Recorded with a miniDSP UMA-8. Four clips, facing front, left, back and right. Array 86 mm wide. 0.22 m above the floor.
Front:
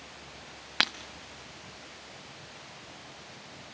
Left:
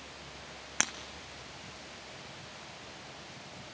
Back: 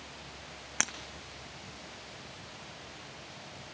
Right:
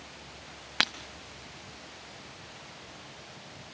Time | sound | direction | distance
0.8 | breaking glass | 40° right | 0.7 m